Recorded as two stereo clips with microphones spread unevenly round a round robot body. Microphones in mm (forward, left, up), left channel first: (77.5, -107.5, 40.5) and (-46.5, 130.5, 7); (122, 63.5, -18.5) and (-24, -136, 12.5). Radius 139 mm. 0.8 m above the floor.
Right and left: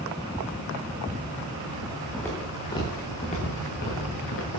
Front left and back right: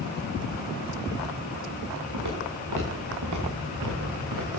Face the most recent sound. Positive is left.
turn(degrees=-105)